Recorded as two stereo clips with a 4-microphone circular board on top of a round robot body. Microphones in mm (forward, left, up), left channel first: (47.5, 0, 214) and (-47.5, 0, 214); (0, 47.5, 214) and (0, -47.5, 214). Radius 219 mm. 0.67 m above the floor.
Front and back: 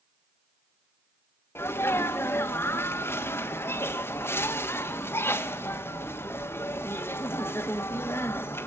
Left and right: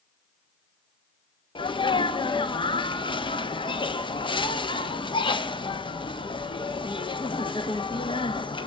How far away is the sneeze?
About 1.6 m.